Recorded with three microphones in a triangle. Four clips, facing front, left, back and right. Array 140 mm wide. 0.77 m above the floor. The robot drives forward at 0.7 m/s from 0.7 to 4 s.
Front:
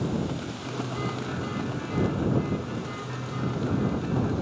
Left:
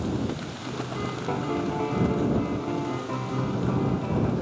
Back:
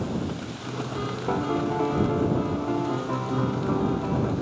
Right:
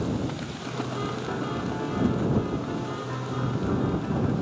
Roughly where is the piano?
Behind.